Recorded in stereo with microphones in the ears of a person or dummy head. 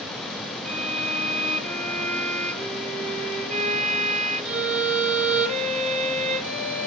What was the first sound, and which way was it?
A violin, 35° right (ahead or behind).